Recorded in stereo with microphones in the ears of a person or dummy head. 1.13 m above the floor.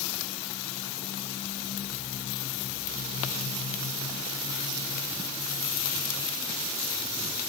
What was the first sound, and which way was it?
Only background noise.